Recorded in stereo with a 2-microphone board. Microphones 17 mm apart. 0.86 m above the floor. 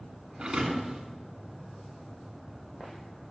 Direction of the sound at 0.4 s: 70° right (ahead or behind).